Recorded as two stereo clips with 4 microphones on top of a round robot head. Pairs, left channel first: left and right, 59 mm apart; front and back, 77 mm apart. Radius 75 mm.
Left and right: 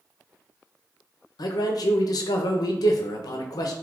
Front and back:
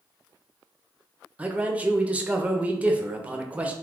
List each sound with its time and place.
1.4 s a man speaking: 105° left, 0.6 m